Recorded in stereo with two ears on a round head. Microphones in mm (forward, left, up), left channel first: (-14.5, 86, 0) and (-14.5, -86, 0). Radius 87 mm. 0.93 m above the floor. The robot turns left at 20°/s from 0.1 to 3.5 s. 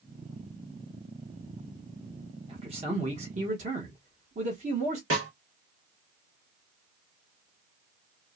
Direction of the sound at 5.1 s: 80° right.